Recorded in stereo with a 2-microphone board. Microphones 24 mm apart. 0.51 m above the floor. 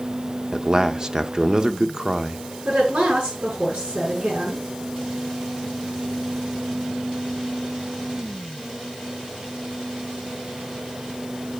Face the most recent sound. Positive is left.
turn(degrees=-80)